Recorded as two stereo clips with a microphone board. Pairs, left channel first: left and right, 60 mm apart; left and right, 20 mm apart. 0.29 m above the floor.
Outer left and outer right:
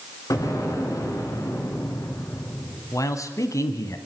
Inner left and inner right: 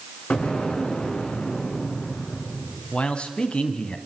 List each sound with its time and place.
0.3 s an explosion: 70° left (ahead or behind), 3.5 m
2.9 s a man speaking: 60° left (ahead or behind), 1.9 m